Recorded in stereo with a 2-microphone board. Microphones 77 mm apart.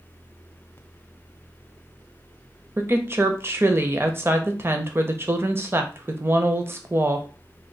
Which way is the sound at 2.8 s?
30° right (ahead or behind).